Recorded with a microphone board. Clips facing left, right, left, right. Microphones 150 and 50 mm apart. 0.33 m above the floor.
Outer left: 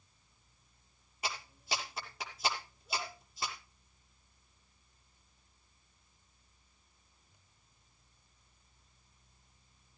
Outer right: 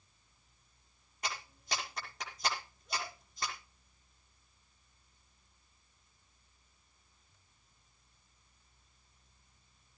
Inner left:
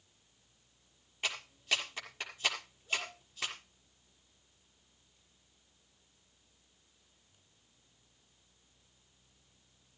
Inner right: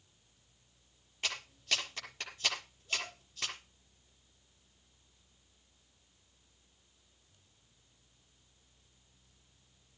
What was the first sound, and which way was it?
A clap, 5° left (ahead or behind).